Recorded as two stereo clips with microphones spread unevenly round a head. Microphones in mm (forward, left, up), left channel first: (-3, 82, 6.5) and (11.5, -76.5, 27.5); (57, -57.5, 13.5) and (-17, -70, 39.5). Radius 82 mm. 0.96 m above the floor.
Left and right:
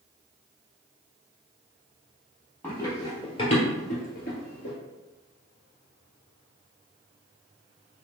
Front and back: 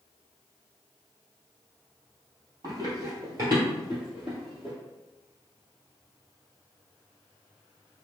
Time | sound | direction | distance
2.6 | running footsteps | straight behind | 1.7 m